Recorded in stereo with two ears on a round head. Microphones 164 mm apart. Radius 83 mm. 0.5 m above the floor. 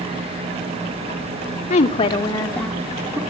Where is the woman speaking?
40° left (ahead or behind), 1.5 m; by 3.2 s 15° right (ahead or behind), 1.3 m.